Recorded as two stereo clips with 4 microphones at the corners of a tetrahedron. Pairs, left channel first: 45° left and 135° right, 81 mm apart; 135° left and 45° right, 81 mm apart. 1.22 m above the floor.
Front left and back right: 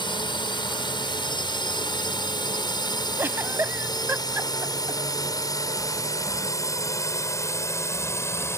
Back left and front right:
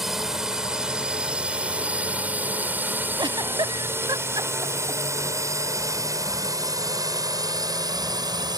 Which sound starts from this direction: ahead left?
A drone, at 0.0 s.